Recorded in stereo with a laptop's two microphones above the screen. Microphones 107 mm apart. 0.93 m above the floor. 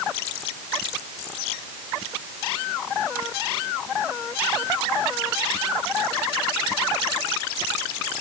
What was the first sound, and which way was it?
Only background noise.